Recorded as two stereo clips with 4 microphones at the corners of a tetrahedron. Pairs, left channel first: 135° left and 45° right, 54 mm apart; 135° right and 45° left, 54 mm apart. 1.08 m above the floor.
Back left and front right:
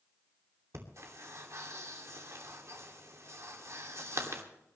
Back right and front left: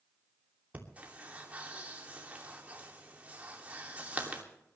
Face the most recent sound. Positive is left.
turn(degrees=-20)